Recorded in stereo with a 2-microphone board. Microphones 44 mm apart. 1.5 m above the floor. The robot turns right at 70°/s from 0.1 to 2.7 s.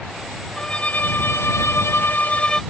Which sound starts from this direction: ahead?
A violin, at 0.6 s.